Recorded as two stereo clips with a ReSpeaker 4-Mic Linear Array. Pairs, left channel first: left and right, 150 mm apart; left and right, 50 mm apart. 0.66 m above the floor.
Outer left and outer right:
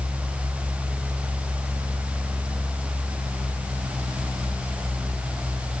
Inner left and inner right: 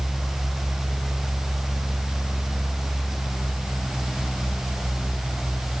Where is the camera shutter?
I don't hear a camera shutter.